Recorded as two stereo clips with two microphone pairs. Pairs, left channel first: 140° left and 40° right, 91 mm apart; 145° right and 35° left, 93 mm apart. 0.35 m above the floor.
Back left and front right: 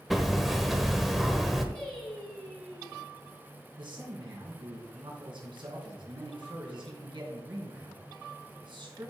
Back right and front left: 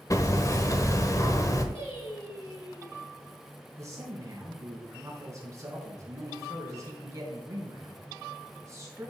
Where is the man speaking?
20° right, 3.5 m.